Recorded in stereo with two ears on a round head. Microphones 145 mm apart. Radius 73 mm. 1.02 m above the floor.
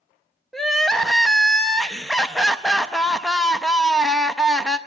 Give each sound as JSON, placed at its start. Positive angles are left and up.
{"t": 0.5, "sound": "crying", "side_deg": 0, "distance_m": 0.5}